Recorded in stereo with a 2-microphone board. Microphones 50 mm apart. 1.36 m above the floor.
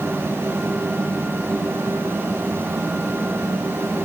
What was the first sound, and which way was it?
Only background noise.